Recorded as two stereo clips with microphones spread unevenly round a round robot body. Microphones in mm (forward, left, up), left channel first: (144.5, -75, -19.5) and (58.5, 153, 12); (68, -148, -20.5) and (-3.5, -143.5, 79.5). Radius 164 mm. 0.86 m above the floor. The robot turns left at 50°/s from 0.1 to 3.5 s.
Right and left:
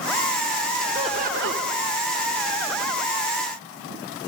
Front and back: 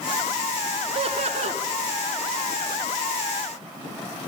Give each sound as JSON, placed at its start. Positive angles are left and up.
{"t": 0.9, "sound": "laughter", "azimuth_deg": -165, "distance_m": 2.0}